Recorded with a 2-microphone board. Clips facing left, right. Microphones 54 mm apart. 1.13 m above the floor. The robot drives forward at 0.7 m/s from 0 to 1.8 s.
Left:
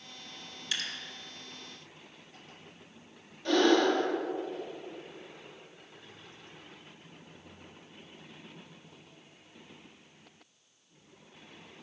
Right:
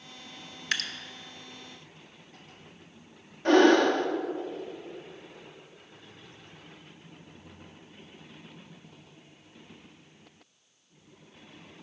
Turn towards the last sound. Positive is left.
turn(degrees=-45)  # may be behind; listen again after turning